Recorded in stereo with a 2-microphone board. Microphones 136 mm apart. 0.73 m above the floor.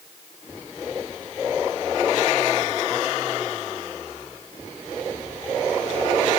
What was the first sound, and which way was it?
Only background noise.